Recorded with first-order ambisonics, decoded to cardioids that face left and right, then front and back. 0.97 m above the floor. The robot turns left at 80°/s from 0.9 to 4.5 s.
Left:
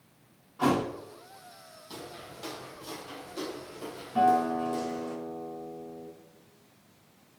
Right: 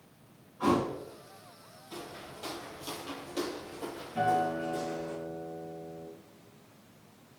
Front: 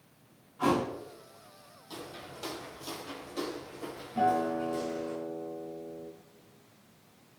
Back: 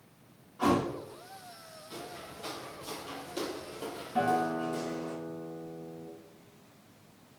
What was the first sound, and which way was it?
A thud, 100° left.